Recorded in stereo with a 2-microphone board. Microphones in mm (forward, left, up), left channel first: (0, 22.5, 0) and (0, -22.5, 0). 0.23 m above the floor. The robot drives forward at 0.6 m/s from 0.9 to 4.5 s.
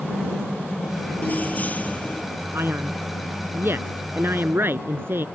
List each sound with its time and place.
1.2 s keys jangling: 40° left (ahead or behind); by 2.2 s 35° left (ahead or behind)
2.5 s a man speaking: 60° right (ahead or behind); by 5.2 s 50° right (ahead or behind)